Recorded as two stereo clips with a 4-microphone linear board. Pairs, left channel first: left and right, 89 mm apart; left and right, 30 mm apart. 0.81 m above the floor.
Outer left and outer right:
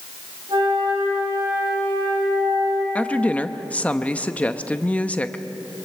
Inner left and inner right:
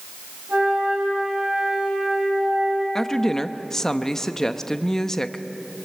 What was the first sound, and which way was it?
A flute, 55° right (ahead or behind).